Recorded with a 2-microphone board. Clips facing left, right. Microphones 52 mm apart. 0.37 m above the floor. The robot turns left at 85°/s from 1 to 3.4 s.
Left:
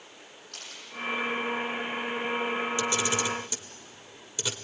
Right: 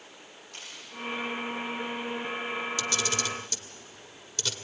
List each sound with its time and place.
0.5 s a camera shutter: 70° left (ahead or behind), 5.5 m
2.8 s a camera shutter: 25° left (ahead or behind), 1.2 m; by 4.5 s 15° left (ahead or behind), 1.2 m